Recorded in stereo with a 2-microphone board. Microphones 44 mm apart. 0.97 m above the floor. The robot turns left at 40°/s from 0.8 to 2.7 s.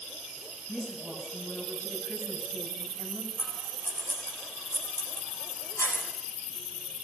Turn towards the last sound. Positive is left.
turn(degrees=65)  # may be behind; listen again after turning